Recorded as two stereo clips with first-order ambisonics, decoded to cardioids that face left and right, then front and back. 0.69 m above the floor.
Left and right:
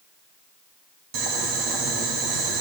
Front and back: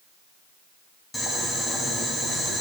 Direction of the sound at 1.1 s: 85° right.